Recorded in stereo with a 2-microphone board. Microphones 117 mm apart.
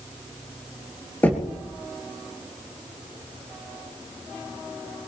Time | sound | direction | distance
1.2 | knocking | 15° left (ahead or behind) | 2.5 m